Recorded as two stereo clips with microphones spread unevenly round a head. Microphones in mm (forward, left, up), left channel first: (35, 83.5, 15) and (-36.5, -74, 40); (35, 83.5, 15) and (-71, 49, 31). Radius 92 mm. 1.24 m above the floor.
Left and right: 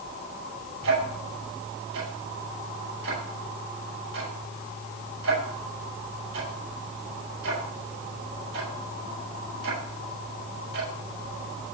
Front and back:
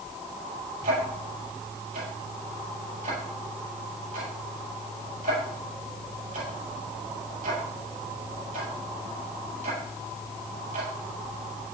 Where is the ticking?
125° right, 8 m.